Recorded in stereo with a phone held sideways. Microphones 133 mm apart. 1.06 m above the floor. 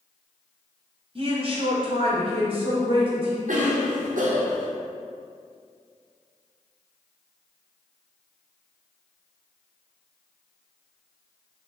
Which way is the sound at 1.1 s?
45° right (ahead or behind).